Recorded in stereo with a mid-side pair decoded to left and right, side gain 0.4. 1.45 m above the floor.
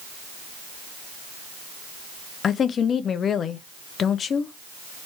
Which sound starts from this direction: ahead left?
A woman speaking, at 2.4 s.